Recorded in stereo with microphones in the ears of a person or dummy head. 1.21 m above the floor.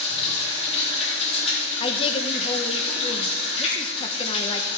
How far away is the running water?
About 4 m.